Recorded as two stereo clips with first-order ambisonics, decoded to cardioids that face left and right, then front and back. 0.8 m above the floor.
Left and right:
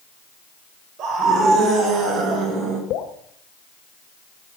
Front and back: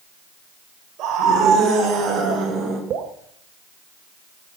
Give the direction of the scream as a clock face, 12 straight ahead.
4 o'clock.